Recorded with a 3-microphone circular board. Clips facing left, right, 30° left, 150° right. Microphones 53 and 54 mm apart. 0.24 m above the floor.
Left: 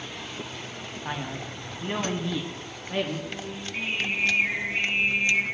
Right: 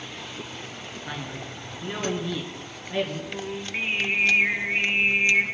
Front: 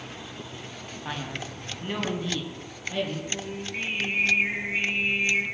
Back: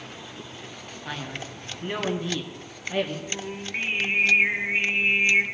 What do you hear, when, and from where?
1.1 s a man speaking: 90° left, 1.9 m; by 3.2 s 140° left, 3 m
3.3 s singing: 120° right, 1.8 m